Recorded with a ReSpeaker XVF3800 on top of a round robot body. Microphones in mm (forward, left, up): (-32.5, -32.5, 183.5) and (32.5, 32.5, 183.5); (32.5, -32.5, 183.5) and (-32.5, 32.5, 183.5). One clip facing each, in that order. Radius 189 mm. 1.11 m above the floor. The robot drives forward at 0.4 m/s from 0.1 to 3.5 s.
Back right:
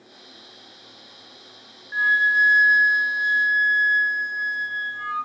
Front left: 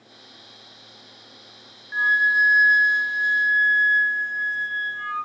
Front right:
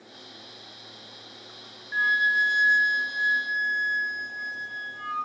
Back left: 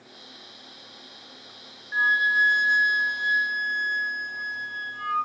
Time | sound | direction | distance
1.9 | a flute | 95° left | 0.6 m